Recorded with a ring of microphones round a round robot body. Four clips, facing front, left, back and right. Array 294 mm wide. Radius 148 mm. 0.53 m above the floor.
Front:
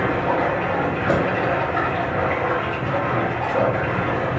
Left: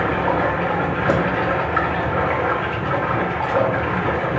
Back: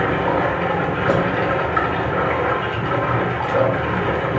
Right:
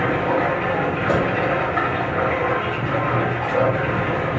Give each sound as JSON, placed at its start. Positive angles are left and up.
{"t": 0.0, "sound": "running water", "azimuth_deg": 135, "distance_m": 0.9}
{"t": 1.1, "sound": "a crack", "azimuth_deg": 140, "distance_m": 0.6}